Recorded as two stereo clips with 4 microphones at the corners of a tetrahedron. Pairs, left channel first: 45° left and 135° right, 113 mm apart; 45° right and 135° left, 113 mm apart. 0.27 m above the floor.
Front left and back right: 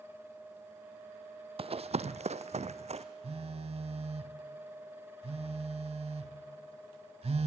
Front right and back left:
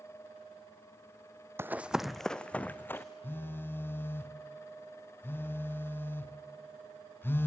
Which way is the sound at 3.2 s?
115° right.